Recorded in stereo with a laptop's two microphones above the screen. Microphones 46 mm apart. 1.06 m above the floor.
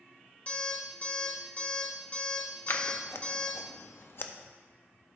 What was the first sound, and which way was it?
An alarm clock, 30° left (ahead or behind).